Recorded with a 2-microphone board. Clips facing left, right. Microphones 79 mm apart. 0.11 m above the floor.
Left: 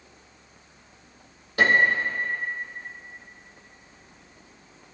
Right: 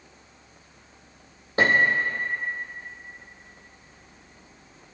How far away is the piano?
About 2.5 m.